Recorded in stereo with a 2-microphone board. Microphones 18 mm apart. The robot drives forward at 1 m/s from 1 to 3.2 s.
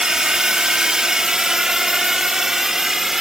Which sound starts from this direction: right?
A drone, at 0.0 s.